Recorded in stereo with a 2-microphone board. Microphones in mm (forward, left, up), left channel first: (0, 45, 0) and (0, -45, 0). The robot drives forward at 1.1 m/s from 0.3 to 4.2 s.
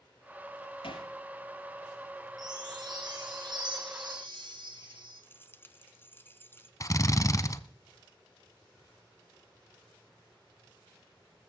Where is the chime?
45° right (ahead or behind), 10 m; by 5.2 s 55° right (ahead or behind), 8.5 m.